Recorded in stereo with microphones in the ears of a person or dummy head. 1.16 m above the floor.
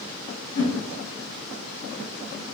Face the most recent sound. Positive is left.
turn(degrees=60)  # may be behind; listen again after turning